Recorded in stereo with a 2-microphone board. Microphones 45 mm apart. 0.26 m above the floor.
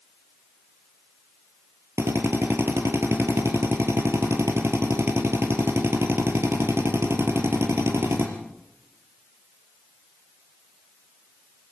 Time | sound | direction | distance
2.0 | a drill | 80° right | 3.5 m